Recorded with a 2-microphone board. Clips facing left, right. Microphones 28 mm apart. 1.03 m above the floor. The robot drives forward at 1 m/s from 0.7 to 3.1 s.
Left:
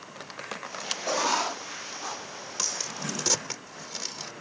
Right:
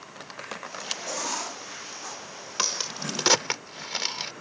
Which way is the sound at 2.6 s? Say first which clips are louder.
Right 4 dB; 30° right (ahead or behind).